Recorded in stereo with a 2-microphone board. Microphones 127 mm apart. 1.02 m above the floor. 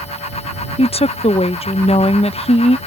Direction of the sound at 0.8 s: 50° left (ahead or behind).